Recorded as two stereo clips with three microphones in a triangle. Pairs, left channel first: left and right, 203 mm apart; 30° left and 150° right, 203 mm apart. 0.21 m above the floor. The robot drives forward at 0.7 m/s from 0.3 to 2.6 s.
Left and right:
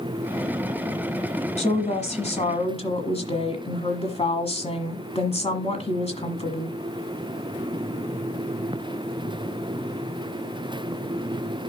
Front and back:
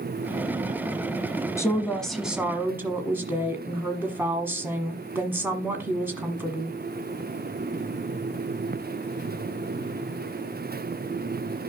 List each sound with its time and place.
1.6 s a woman speaking: 90° left, 1.3 m; by 6.8 s 135° left, 1.5 m